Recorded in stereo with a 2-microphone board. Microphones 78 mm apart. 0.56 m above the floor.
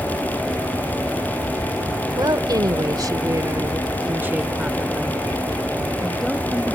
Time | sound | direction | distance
2.2 | a woman speaking | 60° right (ahead or behind) | ?